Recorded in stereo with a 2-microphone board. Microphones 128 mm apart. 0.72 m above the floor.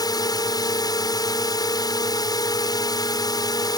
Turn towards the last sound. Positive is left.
turn(degrees=30)  # may be behind; listen again after turning